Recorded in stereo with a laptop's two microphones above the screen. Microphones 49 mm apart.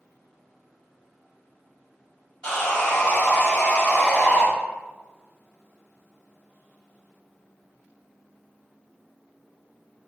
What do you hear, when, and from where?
2.4 s sawing: 25° left (ahead or behind), 0.8 m